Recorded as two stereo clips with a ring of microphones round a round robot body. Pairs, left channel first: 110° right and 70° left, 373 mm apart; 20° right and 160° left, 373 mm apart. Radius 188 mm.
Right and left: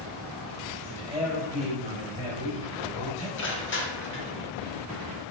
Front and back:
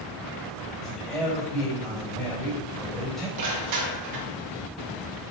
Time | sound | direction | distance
0.8 | a man speaking | 100° right | 4 m
3.4 | crushing | 170° right | 1.8 m